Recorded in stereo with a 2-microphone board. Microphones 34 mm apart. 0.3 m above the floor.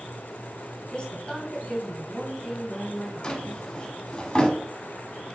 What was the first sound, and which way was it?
A woman speaking, 35° left (ahead or behind).